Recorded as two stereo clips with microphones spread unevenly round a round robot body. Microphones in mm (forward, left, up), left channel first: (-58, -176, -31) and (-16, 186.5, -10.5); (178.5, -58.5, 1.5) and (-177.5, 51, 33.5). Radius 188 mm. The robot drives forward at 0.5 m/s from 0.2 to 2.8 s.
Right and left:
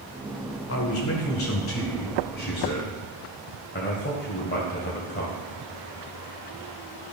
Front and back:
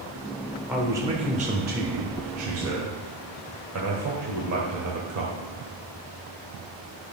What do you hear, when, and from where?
0.7 s a man speaking: 105° right, 1.1 m; by 5.3 s 150° right, 1.7 m